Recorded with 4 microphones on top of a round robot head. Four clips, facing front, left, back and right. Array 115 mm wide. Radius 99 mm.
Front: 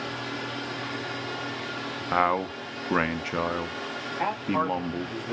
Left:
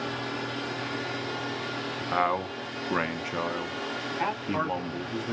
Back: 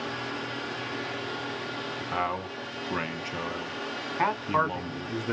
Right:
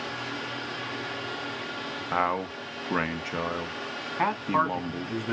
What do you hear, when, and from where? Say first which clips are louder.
2.1 s a man speaking: even, front 7 dB; 5° right, 0.7 m
4.2 s a man speaking: right 5 dB, back 1 dB; 145° right, 1.2 m